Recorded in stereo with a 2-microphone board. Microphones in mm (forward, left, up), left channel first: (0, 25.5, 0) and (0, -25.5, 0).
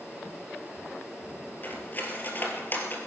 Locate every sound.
1.6 s cutlery clinking: 35° left (ahead or behind), 3 m